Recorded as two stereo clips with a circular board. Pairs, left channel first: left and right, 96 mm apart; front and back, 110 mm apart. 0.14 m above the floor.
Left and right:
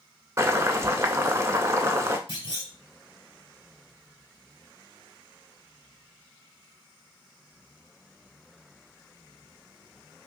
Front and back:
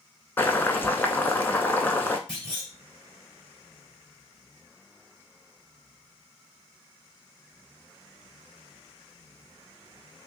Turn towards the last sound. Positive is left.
turn(degrees=80)